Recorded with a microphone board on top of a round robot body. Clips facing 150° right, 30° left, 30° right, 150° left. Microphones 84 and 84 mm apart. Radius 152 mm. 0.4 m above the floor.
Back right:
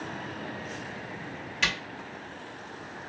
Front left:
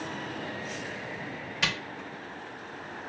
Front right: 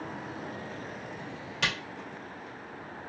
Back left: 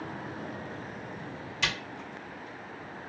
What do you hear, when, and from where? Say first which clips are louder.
1.6 s a camera shutter: back right 2 dB, front right 1 dB; 50° right, 1.6 m